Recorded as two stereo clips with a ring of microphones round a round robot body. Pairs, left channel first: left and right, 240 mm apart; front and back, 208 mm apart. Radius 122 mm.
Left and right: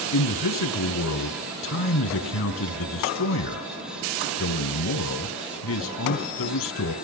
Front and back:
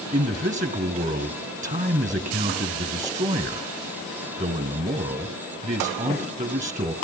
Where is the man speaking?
125° left, 3.5 m.